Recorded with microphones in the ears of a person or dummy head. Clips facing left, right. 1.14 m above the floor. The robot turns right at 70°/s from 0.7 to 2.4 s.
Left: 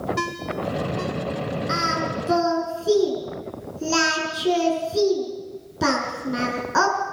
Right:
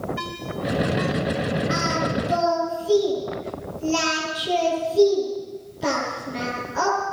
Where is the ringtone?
60° left (ahead or behind), 3 m; by 1.1 s 30° left (ahead or behind), 3 m.